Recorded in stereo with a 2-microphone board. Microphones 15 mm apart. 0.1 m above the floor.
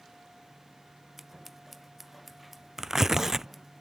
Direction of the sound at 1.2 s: 5° right (ahead or behind).